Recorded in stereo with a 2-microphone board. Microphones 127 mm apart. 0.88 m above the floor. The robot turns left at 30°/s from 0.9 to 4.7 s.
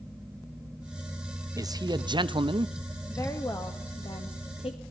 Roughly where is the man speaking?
Ahead right.